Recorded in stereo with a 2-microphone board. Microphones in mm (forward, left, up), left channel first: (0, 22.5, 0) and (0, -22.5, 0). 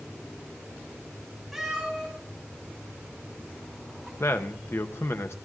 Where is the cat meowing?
Centre (ahead or behind), 5.5 m.